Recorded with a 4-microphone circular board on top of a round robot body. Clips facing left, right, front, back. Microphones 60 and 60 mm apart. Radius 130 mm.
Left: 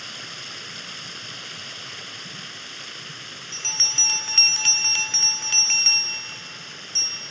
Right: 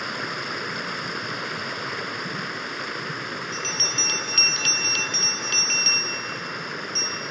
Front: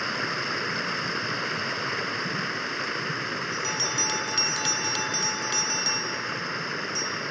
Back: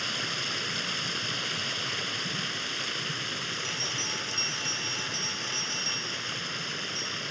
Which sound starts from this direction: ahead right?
Running water, at 0.0 s.